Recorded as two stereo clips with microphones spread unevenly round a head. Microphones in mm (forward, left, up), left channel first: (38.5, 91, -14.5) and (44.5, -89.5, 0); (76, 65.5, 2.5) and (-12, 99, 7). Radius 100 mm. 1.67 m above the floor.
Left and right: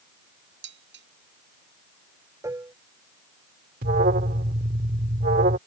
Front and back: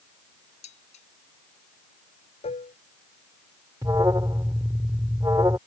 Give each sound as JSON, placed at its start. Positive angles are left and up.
{"t": 0.6, "sound": "dishes clattering", "azimuth_deg": -65}
{"t": 2.4, "sound": "dishes clattering", "azimuth_deg": -15}
{"t": 3.8, "sound": "an alarm", "azimuth_deg": -135}